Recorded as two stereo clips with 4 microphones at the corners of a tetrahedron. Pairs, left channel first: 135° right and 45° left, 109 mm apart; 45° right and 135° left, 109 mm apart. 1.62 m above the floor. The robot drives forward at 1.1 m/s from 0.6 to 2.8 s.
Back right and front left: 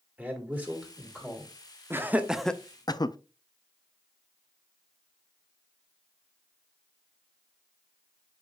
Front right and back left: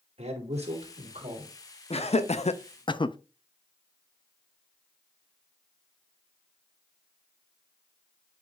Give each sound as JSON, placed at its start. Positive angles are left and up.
{"t": 0.2, "sound": "a man speaking", "azimuth_deg": 120, "distance_m": 2.5}
{"t": 1.9, "sound": "laughter", "azimuth_deg": -25, "distance_m": 1.1}